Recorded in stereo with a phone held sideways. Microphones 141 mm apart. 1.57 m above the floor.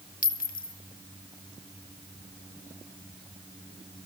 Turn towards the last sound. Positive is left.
turn(degrees=75)  # may be behind; listen again after turning